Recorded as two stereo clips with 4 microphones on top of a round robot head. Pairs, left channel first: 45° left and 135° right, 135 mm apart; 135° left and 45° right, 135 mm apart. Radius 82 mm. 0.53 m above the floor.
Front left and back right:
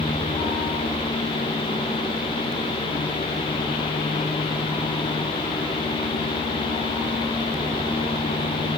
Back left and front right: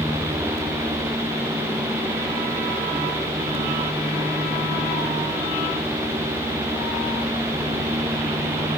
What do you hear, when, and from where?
Only background noise.